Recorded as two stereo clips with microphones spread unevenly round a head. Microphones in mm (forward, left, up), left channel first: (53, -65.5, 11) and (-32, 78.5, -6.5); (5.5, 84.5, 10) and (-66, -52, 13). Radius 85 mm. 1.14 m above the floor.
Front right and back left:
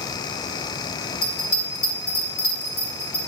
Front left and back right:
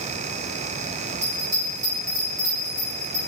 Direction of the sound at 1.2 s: 50° right.